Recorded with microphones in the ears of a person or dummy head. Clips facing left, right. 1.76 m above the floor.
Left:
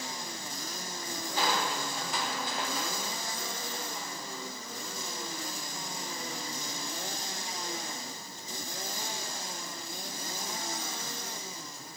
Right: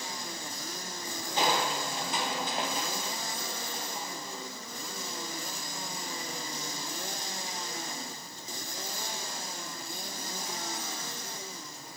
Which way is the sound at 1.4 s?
20° right (ahead or behind).